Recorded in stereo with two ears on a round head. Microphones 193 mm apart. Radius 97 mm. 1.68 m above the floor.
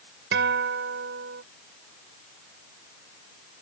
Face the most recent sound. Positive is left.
turn(degrees=-50)  # may be behind; listen again after turning